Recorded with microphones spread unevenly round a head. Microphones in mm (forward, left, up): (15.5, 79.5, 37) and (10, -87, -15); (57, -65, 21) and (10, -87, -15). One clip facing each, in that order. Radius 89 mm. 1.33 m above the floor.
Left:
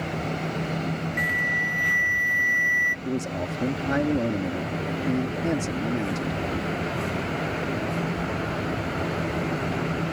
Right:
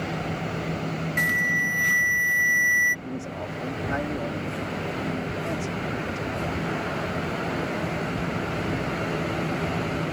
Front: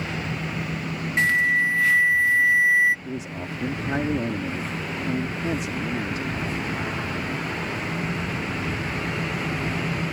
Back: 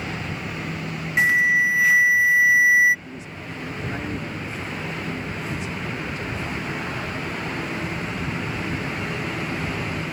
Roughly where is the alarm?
Right.